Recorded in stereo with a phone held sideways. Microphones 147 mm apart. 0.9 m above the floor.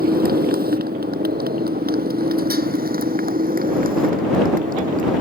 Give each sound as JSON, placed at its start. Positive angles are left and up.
{"t": 0.0, "sound": "a motorcycle", "side_deg": -80}